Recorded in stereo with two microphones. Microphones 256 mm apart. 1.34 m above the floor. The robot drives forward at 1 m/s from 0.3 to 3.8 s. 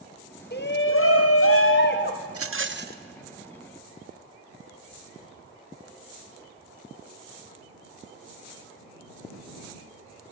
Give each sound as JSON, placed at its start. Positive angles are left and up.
{"t": 0.5, "sound": "a shout", "side_deg": 40, "distance_m": 1.1}
{"t": 2.3, "sound": "a rattle", "side_deg": -65, "distance_m": 0.7}